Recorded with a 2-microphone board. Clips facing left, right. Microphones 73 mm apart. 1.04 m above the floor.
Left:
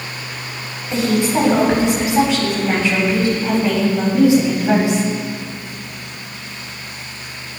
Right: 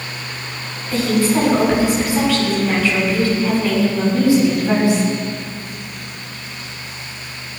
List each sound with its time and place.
0.9 s a woman speaking: 20° left (ahead or behind), 7.5 m